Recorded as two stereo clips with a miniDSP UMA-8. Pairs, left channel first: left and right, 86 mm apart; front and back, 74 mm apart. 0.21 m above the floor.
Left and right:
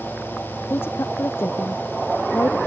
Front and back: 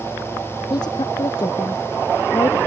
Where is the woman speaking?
25° left.